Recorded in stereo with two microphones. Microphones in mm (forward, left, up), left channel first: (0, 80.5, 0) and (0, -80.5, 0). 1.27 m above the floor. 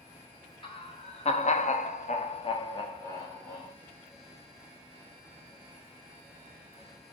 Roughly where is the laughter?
Left.